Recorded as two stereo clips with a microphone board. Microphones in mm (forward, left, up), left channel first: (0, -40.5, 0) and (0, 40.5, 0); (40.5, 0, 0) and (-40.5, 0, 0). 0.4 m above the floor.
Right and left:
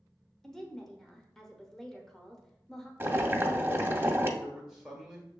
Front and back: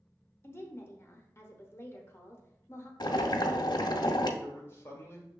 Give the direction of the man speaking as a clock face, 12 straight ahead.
12 o'clock.